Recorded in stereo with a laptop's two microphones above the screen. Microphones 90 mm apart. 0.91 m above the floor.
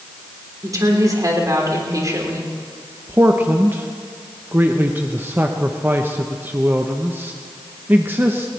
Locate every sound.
0.6 s a woman speaking: 40° right (ahead or behind), 3.5 m
3.1 s a man speaking: 25° right (ahead or behind), 0.8 m